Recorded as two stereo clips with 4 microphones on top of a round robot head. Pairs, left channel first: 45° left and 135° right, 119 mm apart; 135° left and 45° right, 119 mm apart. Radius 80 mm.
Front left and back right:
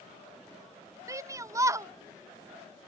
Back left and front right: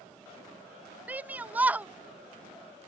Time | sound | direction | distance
1.1 | a shout | 110° right | ?